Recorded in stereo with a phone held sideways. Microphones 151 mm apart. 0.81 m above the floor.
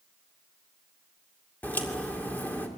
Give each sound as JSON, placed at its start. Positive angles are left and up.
{"t": 1.6, "sound": "a crack", "side_deg": 10, "distance_m": 2.5}